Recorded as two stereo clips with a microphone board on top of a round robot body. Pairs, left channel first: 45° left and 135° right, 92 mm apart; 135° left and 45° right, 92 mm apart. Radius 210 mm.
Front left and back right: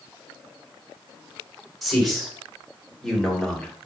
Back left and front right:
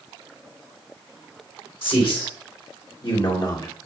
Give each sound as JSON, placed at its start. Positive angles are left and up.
{"t": 1.8, "sound": "a man speaking", "azimuth_deg": 135, "distance_m": 4.0}